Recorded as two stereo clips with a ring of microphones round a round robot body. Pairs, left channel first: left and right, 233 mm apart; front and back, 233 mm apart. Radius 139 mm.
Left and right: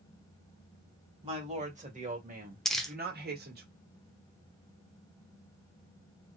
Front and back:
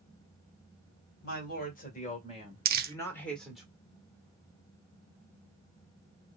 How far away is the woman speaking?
About 1.8 m.